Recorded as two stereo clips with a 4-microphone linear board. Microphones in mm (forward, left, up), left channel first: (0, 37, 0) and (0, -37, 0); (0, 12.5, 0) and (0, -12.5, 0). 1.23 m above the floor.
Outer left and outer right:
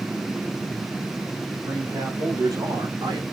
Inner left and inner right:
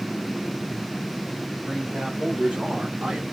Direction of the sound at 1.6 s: 40° right (ahead or behind).